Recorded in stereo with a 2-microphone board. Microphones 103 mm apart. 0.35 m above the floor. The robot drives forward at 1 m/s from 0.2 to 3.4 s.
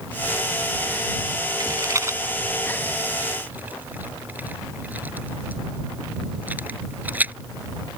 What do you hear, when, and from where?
1.6 s a rattle: 40° right (ahead or behind); by 7.3 s 15° right (ahead or behind)